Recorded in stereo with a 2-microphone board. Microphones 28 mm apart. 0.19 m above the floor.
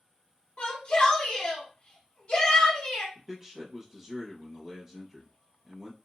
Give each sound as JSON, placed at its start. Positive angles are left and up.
{"t": 0.6, "sound": "a shout", "side_deg": 30, "distance_m": 1.2}
{"t": 3.1, "sound": "a man speaking", "side_deg": -15, "distance_m": 1.0}